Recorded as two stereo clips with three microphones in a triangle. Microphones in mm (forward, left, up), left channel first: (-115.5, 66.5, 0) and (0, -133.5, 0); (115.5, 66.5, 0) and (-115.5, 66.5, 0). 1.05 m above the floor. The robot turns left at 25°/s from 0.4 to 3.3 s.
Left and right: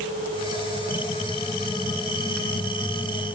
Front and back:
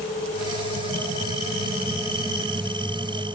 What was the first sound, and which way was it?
Only background noise.